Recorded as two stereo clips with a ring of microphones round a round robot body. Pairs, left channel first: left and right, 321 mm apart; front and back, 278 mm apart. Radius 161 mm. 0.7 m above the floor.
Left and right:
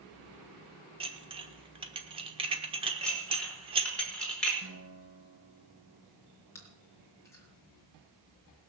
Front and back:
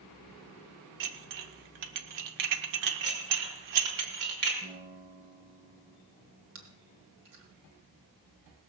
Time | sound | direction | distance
1.0 | dishes clattering | 165° right | 1.3 m
3.0 | dishes clattering | 175° left | 5 m
4.6 | a guitar | 125° right | 6.5 m
6.5 | chewing | 170° left | 3.5 m